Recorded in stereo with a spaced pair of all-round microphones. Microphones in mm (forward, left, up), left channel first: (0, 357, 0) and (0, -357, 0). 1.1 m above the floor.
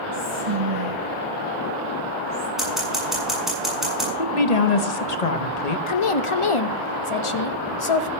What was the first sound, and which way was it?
Whispering, 50° right (ahead or behind).